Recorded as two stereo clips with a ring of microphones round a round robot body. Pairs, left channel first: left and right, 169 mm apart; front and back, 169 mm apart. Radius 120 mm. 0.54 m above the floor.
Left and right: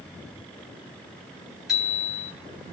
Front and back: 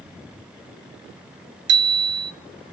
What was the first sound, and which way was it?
A bicycle bell, straight behind.